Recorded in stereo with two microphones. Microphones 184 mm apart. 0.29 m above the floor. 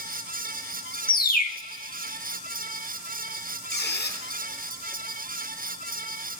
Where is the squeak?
85° left, 1.8 m.